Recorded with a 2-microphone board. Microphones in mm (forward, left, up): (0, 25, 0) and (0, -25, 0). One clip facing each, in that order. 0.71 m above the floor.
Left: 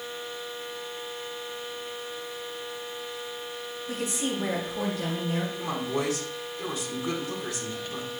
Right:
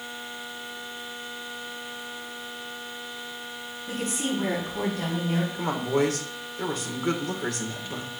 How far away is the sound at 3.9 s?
About 5 m.